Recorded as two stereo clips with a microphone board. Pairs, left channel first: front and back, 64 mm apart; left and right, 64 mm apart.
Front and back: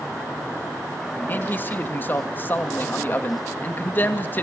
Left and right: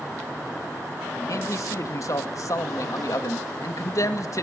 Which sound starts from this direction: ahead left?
A man speaking, at 1.3 s.